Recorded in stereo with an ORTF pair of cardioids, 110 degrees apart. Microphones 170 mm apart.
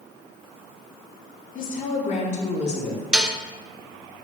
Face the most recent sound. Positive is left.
turn(degrees=-5)